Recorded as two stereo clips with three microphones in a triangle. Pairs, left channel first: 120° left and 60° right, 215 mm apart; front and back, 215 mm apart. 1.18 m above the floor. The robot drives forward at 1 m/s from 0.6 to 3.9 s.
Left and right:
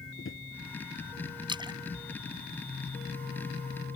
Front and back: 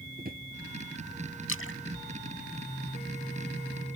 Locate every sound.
0.2 s a drawer: 135° left
1.5 s a splash: 10° left